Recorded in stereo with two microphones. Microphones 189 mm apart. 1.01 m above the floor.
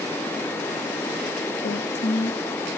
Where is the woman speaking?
70° left (ahead or behind), 1.6 m.